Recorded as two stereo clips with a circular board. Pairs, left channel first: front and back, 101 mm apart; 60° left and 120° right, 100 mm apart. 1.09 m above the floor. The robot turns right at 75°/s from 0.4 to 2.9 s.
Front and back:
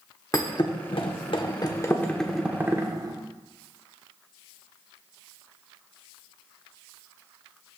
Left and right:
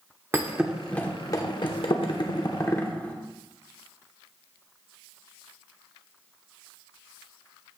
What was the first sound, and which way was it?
A thud, 55° right.